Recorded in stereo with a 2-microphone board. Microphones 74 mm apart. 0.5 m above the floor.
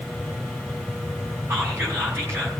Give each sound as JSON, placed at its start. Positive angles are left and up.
{"t": 1.5, "sound": "whispering", "side_deg": -40, "distance_m": 4.5}